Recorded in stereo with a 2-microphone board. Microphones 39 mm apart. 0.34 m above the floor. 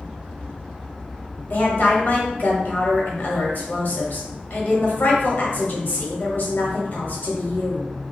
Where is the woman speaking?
50° left (ahead or behind), 1.2 m.